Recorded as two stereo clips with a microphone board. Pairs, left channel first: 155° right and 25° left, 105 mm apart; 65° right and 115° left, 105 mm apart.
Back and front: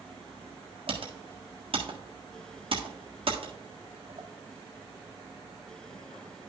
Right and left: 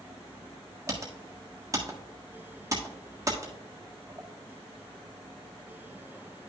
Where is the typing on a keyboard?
50° left, 1.4 m.